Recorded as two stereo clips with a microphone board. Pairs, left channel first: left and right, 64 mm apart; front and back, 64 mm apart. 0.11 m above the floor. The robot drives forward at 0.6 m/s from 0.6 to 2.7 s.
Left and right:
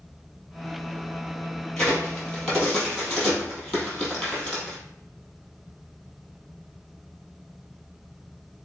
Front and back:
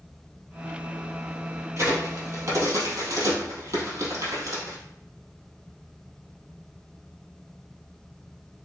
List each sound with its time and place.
1.8 s a crack: 170° left, 2.5 m